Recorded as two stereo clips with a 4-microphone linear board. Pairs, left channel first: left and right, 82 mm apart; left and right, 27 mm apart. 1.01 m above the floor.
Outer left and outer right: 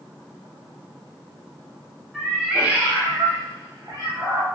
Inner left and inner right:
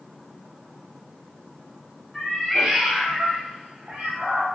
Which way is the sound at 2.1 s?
Centre (ahead or behind).